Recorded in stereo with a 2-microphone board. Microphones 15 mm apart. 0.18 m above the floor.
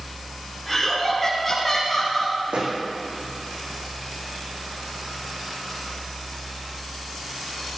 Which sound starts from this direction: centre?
Laughter, at 0.7 s.